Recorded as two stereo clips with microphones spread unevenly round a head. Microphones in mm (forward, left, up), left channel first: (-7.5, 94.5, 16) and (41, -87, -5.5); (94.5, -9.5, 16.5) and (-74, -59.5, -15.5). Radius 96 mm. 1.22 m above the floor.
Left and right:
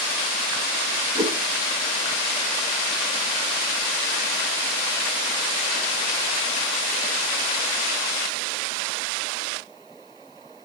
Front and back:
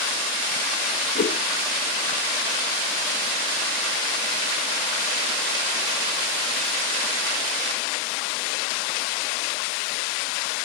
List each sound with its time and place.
1.1 s a whoosh: 15° right, 0.9 m